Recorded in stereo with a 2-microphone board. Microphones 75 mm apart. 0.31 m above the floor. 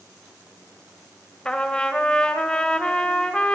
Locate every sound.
1.4 s a trumpet: 15° left (ahead or behind), 1.1 m